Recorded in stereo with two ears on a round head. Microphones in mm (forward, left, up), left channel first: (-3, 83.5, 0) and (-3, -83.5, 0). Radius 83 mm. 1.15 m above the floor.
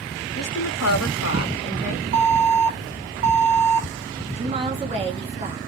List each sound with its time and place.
0.3 s a woman speaking: 55° left (ahead or behind), 0.7 m; by 2.0 s 40° left (ahead or behind), 1.2 m
2.1 s an alarm: 25° right (ahead or behind), 2 m
4.3 s a woman speaking: 30° right (ahead or behind), 1.6 m